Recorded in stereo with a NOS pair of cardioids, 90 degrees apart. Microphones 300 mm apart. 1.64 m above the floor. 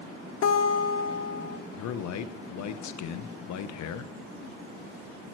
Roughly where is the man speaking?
Ahead left.